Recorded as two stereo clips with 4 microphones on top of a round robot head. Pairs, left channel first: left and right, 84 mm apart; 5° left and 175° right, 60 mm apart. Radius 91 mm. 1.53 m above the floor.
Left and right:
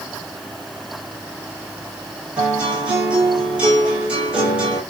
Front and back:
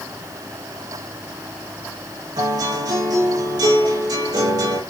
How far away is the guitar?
About 7 m.